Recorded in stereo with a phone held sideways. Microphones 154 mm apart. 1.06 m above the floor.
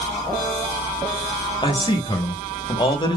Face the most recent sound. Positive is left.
turn(degrees=30)  # may be behind; listen again after turning